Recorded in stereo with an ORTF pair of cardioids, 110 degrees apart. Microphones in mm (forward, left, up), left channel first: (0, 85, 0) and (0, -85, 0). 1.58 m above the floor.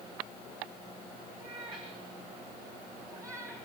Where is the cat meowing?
30° right, 8 m; by 3.6 s 15° right, 5.5 m.